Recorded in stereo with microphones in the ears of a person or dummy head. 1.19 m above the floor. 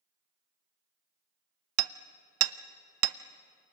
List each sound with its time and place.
1.8 s hammering: 85° right, 0.7 m